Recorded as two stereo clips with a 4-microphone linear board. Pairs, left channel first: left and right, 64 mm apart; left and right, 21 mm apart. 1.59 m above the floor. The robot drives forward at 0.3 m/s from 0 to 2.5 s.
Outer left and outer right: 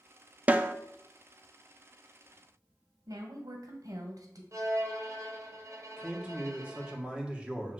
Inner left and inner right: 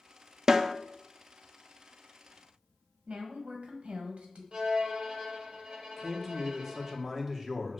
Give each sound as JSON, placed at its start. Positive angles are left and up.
{"t": 0.5, "sound": "a snare drum", "side_deg": -25, "distance_m": 0.6}
{"t": 3.1, "sound": "a woman speaking", "side_deg": -65, "distance_m": 1.6}
{"t": 4.5, "sound": "a violin", "side_deg": -50, "distance_m": 1.4}
{"t": 6.0, "sound": "a man speaking", "side_deg": -15, "distance_m": 1.4}